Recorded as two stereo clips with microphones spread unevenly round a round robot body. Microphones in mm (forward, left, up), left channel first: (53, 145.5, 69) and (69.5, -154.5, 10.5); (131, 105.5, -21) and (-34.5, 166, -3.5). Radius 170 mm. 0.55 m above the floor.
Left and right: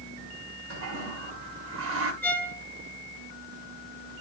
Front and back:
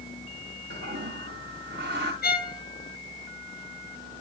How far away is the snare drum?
No snare drum in this recording.